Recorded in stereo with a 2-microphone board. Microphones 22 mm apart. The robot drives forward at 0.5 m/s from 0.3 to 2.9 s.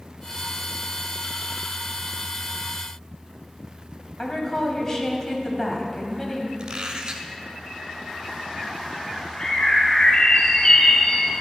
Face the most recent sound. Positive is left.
turn(degrees=40)  # may be behind; listen again after turning